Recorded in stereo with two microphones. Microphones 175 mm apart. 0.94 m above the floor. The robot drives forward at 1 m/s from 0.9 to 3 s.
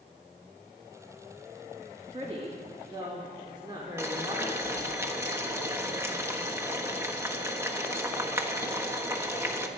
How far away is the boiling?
About 1.2 m.